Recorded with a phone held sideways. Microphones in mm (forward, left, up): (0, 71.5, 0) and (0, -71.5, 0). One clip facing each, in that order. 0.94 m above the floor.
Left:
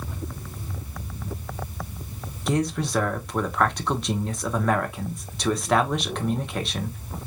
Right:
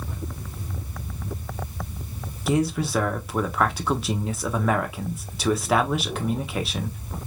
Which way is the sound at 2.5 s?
5° right (ahead or behind).